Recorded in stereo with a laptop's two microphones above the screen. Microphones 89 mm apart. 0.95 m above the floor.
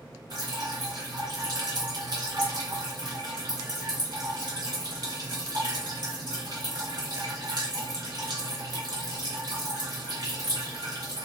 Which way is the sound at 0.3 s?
60° right (ahead or behind).